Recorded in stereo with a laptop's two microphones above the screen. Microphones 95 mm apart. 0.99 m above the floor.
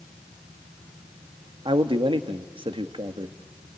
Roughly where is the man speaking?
Right.